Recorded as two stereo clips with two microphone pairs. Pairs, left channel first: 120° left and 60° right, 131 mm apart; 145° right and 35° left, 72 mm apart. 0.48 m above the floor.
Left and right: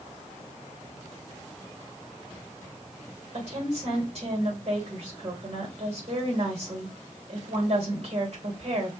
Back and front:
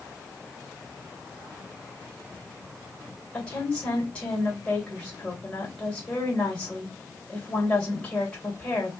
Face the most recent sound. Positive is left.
turn(degrees=-75)